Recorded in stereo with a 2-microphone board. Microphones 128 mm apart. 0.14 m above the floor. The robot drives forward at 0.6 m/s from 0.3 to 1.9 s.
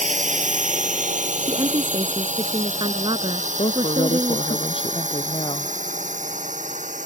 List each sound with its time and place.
0.0 s a drone: 65° right (ahead or behind)
1.5 s a woman speaking: 40° right (ahead or behind)
3.6 s a woman speaking: 40° left (ahead or behind)